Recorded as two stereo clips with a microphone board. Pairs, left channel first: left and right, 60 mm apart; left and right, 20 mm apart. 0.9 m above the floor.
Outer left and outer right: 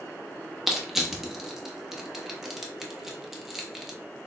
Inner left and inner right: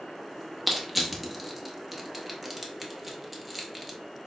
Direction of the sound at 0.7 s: 5° right (ahead or behind).